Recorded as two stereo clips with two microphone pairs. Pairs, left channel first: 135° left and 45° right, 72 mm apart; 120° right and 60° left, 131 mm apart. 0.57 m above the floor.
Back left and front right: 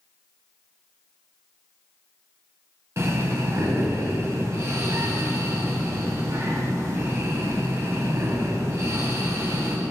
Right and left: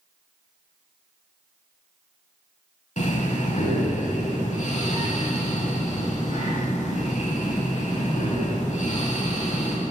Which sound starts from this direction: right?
Breathing, at 3.0 s.